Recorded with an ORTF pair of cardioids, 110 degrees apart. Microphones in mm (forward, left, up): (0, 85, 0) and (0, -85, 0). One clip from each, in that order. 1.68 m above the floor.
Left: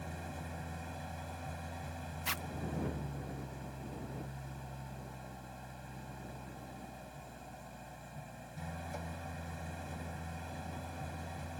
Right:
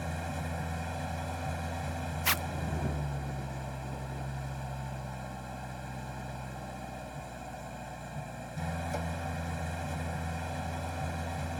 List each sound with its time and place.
0.0 s an engine running: 45° right
2.2 s a zipper: 45° right